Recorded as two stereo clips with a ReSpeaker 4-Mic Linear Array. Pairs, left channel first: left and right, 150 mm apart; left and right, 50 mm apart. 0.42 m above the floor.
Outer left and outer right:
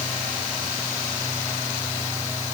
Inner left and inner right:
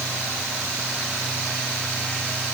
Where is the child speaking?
No child speaking in this recording.